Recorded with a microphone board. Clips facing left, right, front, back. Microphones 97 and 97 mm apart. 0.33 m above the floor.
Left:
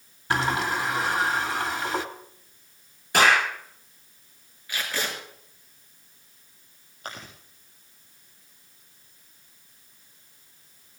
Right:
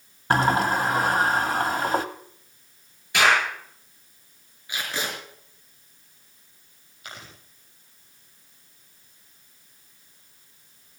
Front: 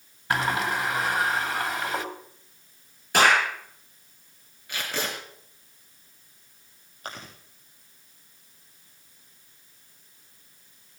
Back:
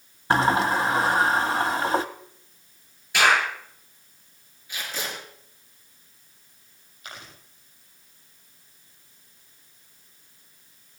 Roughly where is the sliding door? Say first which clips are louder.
Right 4 dB, back 5 dB; behind right.